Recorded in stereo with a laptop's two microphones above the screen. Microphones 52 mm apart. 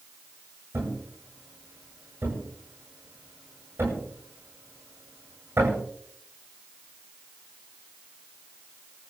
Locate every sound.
0.7 s a thud: 50° right (ahead or behind), 9 m